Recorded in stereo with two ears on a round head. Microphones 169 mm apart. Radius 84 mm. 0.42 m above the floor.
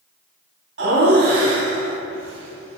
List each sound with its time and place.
0.8 s laughter: 60° right (ahead or behind), 2.5 m